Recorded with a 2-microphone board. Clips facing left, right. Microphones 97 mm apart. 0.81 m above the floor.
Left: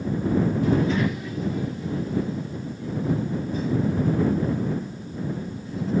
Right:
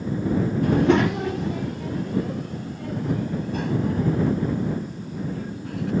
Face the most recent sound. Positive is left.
turn(degrees=-70)  # may be behind; listen again after turning